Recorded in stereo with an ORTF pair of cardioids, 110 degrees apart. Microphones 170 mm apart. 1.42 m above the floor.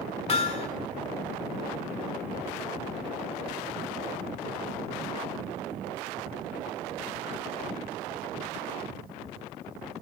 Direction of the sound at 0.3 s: 40° left.